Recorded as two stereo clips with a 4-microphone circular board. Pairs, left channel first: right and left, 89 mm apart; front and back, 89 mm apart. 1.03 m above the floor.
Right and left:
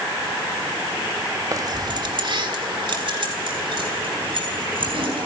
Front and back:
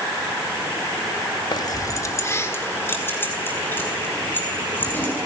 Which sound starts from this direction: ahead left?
Keys jangling, at 1.5 s.